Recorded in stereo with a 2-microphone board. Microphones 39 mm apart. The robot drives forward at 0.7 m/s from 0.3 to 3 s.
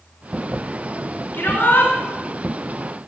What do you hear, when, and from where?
1.3 s a shout: 60° left (ahead or behind), 4 m; by 1.9 s 65° left (ahead or behind), 3.5 m